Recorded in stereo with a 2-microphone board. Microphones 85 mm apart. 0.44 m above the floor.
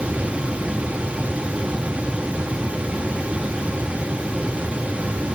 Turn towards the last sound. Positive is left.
No sound to turn to.